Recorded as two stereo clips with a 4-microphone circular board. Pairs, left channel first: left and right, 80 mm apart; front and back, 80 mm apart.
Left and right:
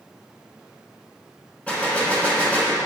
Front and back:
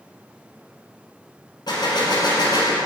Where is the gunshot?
15° left, 1.7 m.